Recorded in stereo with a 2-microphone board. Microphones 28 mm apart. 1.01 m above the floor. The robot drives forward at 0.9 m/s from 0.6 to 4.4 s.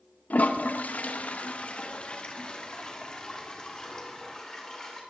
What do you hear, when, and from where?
0.3 s a toilet flushing: 65° left (ahead or behind), 1.2 m; by 5.0 s 15° left (ahead or behind), 3.5 m